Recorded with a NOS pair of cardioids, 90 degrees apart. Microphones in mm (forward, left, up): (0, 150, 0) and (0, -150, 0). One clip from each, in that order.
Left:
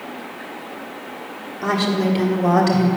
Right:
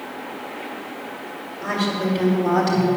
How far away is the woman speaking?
About 2.5 m.